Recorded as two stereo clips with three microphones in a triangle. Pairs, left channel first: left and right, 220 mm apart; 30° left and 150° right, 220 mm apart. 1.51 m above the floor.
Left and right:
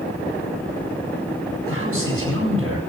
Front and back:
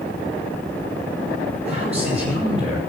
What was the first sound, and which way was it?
A man speaking, 90° right.